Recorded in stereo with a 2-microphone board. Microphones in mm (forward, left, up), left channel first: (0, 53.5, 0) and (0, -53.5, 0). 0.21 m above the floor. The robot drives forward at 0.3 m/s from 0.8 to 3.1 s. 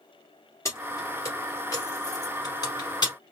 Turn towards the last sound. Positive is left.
turn(degrees=40)  # may be behind; listen again after turning